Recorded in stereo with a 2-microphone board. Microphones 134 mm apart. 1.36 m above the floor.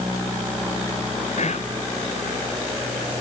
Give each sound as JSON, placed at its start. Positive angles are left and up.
{"t": 1.4, "sound": "whispering", "side_deg": 65, "distance_m": 0.9}